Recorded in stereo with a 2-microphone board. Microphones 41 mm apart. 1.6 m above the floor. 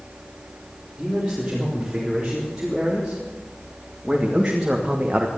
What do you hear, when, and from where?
1.0 s a man speaking: 5° right (ahead or behind), 4.5 m; by 5.3 s 30° right (ahead or behind), 1.2 m